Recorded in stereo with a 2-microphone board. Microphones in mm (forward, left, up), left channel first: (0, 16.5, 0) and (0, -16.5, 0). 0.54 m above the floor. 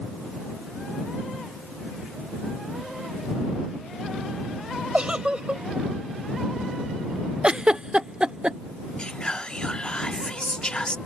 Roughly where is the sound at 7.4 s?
Right.